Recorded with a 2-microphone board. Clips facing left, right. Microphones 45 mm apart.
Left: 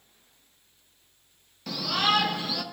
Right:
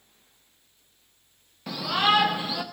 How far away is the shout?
About 0.6 m.